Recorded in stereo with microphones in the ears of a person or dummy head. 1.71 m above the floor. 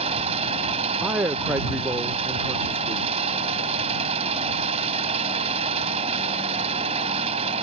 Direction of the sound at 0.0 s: 35° right (ahead or behind).